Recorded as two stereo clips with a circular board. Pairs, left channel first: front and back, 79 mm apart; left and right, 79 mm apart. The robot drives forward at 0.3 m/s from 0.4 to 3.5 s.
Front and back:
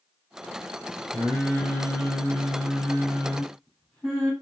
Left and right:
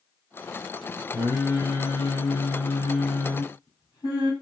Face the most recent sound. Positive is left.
turn(degrees=80)